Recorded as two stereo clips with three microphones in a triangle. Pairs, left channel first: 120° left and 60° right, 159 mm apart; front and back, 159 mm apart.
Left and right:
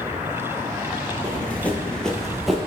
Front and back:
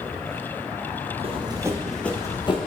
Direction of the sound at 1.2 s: 170° right.